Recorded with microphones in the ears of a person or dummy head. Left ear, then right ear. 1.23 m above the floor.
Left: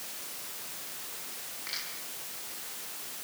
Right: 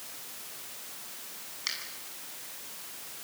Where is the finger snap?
75° right (ahead or behind), 8 m.